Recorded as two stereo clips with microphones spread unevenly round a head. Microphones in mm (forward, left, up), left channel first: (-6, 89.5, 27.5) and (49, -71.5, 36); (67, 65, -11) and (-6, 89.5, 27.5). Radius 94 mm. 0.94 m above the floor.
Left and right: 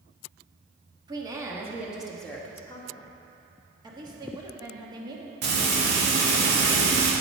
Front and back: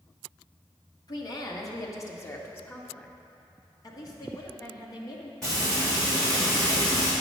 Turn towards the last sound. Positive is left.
turn(degrees=-90)